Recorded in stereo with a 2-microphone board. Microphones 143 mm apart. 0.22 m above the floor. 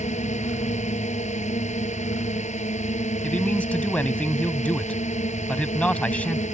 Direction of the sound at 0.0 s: 55° left (ahead or behind).